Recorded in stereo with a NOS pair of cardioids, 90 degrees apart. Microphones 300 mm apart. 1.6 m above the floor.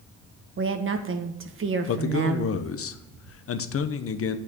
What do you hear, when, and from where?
0.6 s a woman speaking: 40° right, 1.7 m
1.9 s a man speaking: 50° left, 1.0 m